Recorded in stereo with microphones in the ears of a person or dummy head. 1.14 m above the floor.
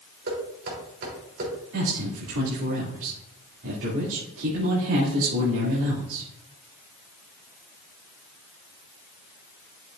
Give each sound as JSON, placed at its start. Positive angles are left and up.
{"t": 0.3, "sound": "knocking", "side_deg": -55, "distance_m": 3.5}
{"t": 1.7, "sound": "a man speaking", "side_deg": -70, "distance_m": 3.0}